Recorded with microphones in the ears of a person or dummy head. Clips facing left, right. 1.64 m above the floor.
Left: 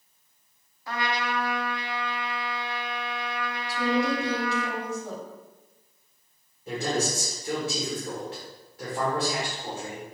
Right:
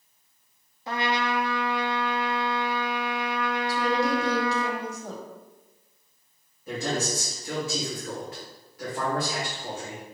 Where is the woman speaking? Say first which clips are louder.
Left 1 dB; 40° right (ahead or behind), 1.4 m.